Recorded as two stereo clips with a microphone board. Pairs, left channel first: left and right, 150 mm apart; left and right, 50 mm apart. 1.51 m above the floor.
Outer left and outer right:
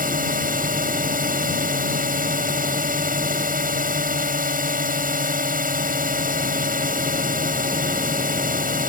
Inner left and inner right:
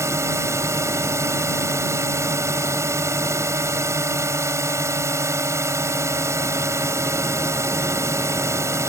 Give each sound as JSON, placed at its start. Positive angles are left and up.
{"t": 0.0, "sound": "a drone", "side_deg": -70}